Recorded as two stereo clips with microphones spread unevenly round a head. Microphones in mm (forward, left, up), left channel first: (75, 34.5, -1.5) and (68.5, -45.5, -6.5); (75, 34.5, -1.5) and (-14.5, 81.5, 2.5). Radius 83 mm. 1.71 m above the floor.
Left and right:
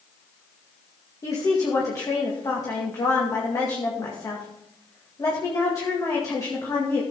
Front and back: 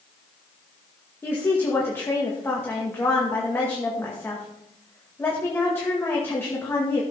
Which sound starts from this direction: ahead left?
A woman speaking, at 1.2 s.